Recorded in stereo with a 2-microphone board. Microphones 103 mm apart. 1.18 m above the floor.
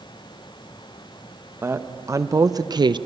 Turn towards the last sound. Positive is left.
turn(degrees=-50)  # may be behind; listen again after turning